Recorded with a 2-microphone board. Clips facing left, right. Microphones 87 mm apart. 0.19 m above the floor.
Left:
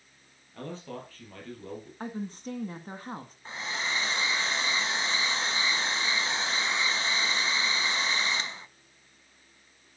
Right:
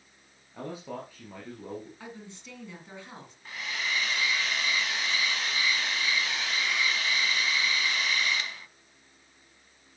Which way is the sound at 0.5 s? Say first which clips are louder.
Right 2 dB; 10° right (ahead or behind).